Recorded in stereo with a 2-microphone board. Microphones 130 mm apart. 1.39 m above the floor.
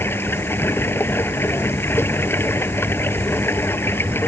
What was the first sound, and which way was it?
Running water, 15° left (ahead or behind).